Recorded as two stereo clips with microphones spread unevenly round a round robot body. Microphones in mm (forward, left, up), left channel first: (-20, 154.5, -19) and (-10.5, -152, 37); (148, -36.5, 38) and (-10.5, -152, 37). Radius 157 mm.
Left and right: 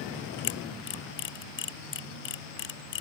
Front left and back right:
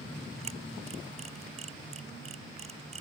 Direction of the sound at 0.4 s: 145° left.